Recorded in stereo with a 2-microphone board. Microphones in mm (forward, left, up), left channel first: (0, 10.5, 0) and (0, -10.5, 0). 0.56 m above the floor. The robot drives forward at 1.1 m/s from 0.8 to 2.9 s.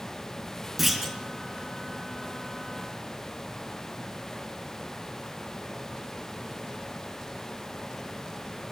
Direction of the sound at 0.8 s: 5° right (ahead or behind).